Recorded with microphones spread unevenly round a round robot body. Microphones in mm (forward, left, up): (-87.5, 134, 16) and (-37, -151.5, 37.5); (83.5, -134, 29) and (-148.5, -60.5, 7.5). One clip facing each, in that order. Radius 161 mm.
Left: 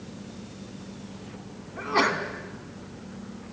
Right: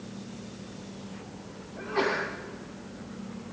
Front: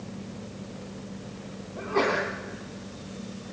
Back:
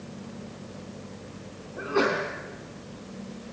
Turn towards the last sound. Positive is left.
turn(degrees=80)